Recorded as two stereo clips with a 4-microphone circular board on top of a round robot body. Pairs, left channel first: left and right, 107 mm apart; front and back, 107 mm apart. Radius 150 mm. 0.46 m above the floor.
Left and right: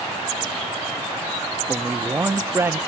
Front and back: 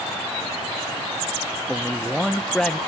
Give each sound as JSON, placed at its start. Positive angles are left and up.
{"t": 1.7, "sound": "a man speaking", "azimuth_deg": -75, "distance_m": 0.8}